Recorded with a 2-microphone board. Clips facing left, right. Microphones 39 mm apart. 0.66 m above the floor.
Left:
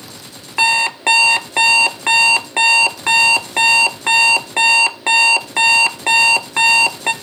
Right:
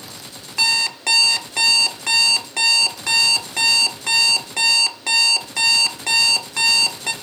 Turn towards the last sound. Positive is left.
turn(degrees=35)  # may be behind; listen again after turning